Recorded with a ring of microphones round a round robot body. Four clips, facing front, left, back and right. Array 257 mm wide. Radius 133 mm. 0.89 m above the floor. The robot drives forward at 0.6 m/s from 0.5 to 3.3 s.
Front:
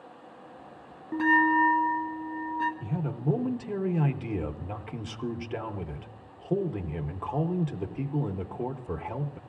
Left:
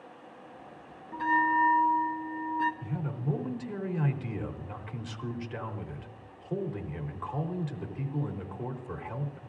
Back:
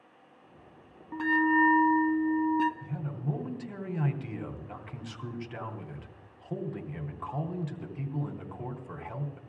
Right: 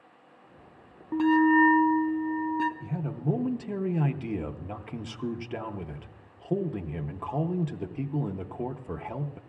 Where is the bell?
55° right, 0.6 m; by 2.7 s 145° right, 0.8 m.